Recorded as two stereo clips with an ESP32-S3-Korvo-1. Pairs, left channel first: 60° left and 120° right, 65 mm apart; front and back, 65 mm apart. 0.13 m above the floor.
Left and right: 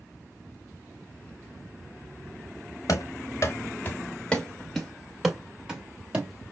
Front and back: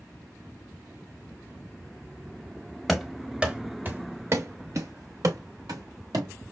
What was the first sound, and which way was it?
Running footsteps, 90° left.